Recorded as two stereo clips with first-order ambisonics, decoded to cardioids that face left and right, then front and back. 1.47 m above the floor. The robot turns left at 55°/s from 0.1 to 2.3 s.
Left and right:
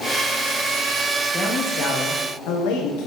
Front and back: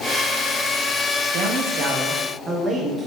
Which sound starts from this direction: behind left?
A man speaking, at 1.3 s.